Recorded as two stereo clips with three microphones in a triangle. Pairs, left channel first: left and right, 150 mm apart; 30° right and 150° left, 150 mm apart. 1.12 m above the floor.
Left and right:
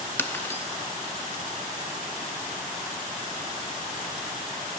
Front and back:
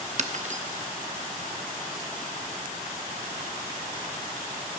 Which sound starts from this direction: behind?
Breaking glass, at 0.2 s.